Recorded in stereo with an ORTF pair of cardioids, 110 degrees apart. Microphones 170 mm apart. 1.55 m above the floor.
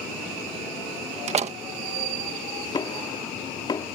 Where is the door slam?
40° right.